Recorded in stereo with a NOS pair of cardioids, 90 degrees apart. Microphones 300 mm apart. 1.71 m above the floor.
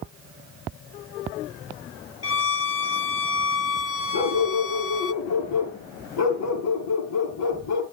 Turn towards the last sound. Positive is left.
turn(degrees=65)